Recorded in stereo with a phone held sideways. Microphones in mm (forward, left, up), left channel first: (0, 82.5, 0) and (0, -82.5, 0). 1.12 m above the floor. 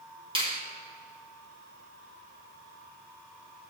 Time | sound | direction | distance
0.3 | a finger snap | 30° right (ahead or behind) | 1.6 m